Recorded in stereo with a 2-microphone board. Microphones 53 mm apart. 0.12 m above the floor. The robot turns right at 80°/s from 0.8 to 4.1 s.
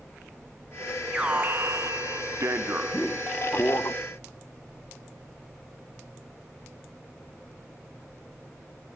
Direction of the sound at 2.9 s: 25° left (ahead or behind).